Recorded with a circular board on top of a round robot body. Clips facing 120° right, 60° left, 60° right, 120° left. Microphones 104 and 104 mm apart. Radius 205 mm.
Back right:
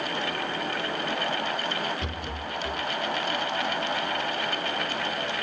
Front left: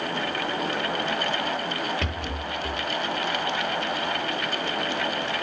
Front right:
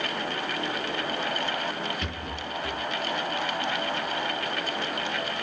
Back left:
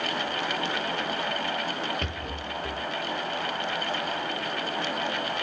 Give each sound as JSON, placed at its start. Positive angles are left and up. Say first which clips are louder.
{"t": 2.0, "sound": "a rattle", "louder": "front left 3 dB, even", "azimuth_deg": 80, "distance_m": 8.5}